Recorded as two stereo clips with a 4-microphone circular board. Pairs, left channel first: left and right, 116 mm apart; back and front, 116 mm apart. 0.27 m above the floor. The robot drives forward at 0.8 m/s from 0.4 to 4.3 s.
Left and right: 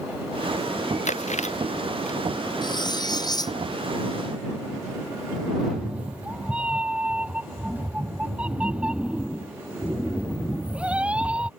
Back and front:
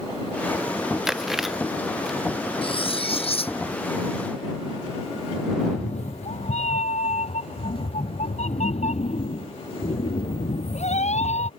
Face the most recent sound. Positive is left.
turn(degrees=-170)